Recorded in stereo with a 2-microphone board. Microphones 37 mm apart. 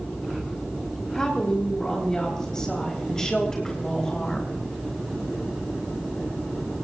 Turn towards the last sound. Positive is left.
turn(degrees=20)  # may be behind; listen again after turning